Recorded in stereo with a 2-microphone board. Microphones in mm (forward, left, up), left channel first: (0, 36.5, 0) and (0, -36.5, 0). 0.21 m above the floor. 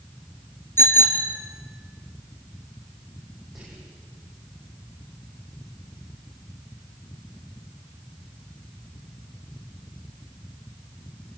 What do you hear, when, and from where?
0.8 s a bicycle bell: 35° left (ahead or behind), 2.5 m
3.5 s whispering: 5° right (ahead or behind), 10 m